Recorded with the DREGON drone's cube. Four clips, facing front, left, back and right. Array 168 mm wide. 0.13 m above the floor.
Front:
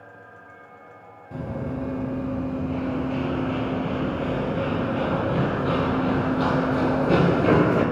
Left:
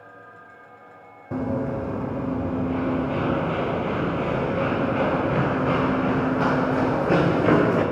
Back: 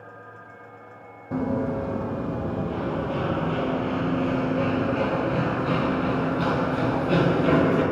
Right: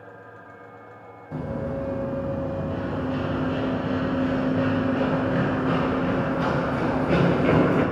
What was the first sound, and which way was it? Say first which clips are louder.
Running footsteps: left 4 dB, back 5 dB; 125° left.